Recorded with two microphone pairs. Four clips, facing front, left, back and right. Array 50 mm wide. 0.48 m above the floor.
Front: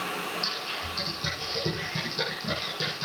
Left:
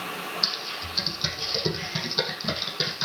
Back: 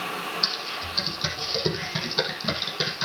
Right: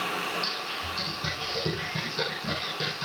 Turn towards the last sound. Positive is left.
turn(degrees=160)